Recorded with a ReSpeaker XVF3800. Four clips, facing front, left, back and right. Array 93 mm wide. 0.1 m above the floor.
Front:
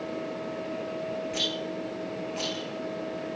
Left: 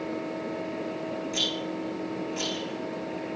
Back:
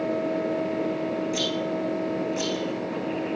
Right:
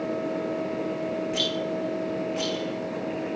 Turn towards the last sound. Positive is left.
turn(degrees=-45)